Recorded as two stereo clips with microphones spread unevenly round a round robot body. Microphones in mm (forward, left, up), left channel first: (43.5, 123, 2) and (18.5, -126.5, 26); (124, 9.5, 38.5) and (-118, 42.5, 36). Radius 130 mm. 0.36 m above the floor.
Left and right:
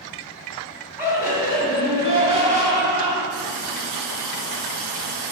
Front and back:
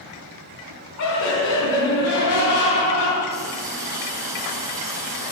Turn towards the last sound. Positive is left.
turn(degrees=-110)